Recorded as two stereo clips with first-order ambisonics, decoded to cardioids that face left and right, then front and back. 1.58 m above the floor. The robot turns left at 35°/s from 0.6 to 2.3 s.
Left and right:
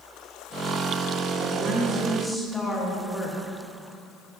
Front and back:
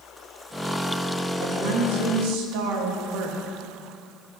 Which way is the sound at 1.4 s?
155° right.